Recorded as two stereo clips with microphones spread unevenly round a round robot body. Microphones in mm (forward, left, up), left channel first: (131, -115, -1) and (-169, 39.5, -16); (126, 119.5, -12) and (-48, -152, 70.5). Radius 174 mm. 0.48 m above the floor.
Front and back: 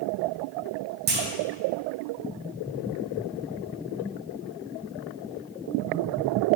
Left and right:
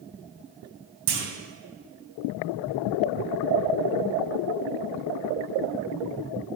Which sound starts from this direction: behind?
A clunk, at 1.1 s.